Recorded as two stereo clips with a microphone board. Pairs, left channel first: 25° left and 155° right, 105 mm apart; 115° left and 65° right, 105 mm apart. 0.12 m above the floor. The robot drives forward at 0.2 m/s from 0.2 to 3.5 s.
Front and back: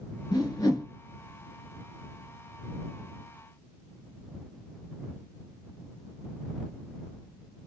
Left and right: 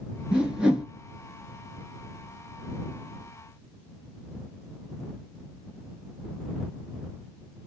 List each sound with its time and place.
0.3 s a whoosh: 10° left, 0.8 m